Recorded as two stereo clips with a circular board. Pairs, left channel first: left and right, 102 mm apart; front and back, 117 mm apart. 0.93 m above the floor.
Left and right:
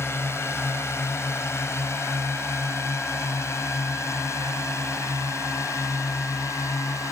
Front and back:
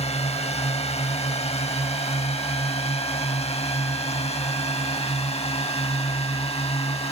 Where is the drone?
25° left; by 7.1 s 30° left.